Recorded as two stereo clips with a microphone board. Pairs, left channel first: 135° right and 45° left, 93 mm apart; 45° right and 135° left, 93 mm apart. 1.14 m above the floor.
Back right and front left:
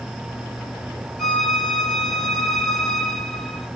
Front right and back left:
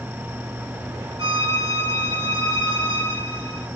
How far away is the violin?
About 2.5 m.